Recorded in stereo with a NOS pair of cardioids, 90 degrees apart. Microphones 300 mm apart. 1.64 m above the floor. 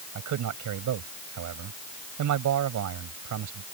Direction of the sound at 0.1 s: 70° right.